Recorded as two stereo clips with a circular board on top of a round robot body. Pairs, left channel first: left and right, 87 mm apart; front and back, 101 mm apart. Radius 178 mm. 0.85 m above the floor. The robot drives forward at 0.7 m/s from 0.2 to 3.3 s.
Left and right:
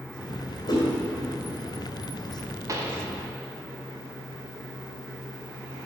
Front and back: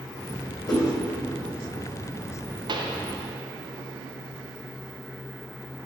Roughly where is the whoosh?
Ahead left.